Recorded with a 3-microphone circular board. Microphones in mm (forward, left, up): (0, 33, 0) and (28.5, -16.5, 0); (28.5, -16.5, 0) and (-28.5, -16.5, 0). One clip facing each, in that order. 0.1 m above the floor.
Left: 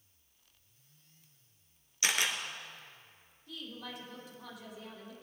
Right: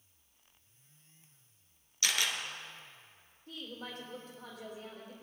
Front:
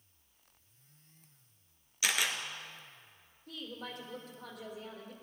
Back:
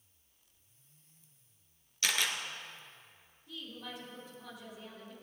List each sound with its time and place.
2.0 s a camera shutter: 70° left, 1.4 m
3.5 s a woman speaking: 15° right, 3.5 m